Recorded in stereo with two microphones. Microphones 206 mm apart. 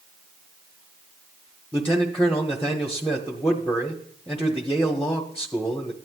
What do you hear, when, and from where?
1.7 s a man speaking: 5° left (ahead or behind), 1.1 m